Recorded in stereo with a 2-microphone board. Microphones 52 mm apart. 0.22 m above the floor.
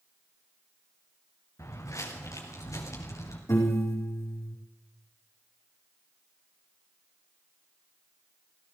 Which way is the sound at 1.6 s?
85° left.